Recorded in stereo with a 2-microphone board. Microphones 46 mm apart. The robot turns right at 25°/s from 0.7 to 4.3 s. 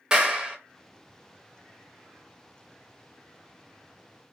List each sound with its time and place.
0.1 s a clap: 20° right (ahead or behind), 0.7 m